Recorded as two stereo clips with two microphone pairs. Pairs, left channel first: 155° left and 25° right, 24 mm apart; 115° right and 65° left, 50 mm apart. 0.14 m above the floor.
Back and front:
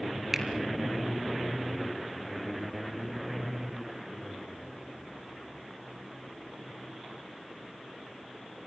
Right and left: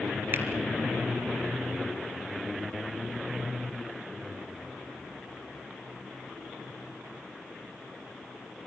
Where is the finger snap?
45° left, 2.5 m.